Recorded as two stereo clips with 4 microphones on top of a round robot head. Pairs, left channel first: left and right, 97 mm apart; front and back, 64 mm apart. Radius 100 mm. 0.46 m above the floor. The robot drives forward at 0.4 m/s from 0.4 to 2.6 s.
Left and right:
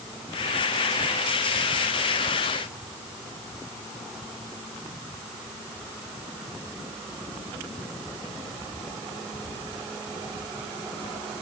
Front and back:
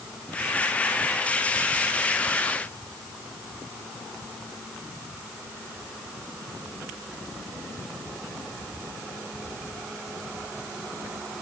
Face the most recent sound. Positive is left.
No sound to turn to.